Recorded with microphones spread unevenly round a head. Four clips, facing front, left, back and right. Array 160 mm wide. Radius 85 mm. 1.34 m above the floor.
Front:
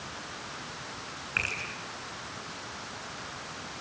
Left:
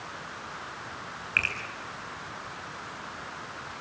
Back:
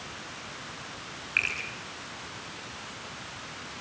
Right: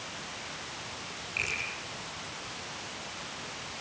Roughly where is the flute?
I don't hear a flute.